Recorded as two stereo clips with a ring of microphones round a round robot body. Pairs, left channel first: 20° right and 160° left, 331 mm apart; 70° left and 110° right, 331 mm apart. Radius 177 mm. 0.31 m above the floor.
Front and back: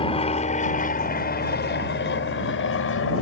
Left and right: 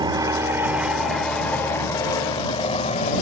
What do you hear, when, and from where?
0.0 s an aircraft: 60° right; by 3.2 s 5° left